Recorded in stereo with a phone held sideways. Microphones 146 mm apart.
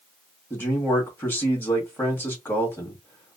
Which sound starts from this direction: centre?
A man speaking, at 0.5 s.